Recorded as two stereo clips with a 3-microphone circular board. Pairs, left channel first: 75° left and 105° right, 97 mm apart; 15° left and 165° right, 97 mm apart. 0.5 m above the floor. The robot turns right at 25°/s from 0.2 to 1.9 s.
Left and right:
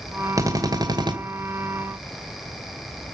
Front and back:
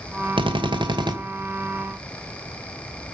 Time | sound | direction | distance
0.4 | a drill | 155° right | 2.0 m